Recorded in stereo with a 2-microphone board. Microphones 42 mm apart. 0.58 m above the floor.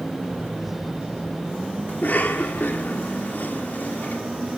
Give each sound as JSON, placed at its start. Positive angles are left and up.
{"t": 1.9, "sound": "a cough", "side_deg": 45, "distance_m": 1.3}